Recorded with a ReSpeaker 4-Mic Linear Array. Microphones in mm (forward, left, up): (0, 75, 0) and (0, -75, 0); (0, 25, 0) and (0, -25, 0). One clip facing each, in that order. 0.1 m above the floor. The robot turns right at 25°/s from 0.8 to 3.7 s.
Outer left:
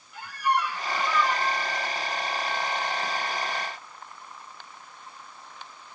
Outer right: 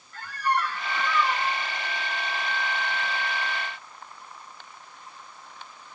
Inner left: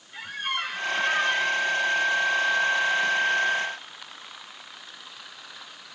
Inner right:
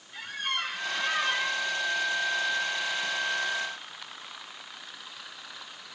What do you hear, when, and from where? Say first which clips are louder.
0.1 s a squeak: outer left 1 dB, inner left 2 dB; 10° left (ahead or behind), 1.6 m; by 1.7 s 10° right (ahead or behind), 1.6 m